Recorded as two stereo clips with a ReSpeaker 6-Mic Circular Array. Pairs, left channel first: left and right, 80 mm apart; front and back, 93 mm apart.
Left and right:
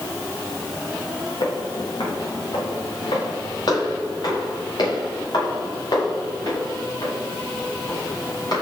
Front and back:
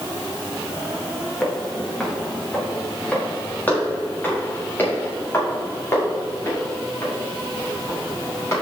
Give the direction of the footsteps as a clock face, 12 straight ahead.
9 o'clock.